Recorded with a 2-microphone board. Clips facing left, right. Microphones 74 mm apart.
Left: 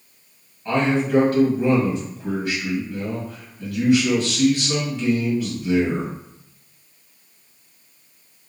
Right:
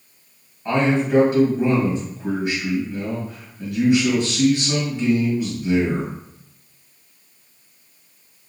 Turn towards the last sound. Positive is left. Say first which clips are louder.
# right 1 dB
turn(degrees=-20)  # may be behind; listen again after turning